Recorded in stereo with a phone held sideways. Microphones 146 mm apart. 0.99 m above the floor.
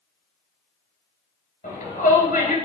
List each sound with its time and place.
1.6 s a shout: 80° left, 4 m